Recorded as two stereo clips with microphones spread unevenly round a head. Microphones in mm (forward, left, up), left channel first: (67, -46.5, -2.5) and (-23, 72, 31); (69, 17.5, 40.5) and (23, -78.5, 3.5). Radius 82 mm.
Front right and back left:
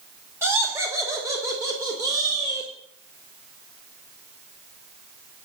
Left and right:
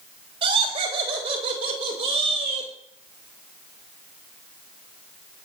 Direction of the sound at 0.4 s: 155° right.